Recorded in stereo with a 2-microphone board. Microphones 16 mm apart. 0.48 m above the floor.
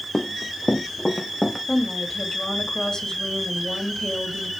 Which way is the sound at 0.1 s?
50° left (ahead or behind).